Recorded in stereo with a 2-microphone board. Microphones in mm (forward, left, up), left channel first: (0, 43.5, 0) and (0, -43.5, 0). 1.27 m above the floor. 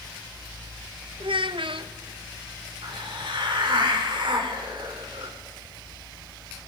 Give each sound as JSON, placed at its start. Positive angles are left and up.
{"t": 1.2, "sound": "a child speaking", "side_deg": -80, "distance_m": 0.9}
{"t": 2.8, "sound": "a hiss", "side_deg": -70, "distance_m": 3.0}